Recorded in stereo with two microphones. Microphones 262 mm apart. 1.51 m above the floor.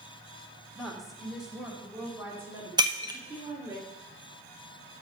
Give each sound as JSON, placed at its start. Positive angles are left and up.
{"t": 0.8, "sound": "a woman speaking", "side_deg": 0, "distance_m": 1.9}
{"t": 2.8, "sound": "breaking glass", "side_deg": -15, "distance_m": 0.8}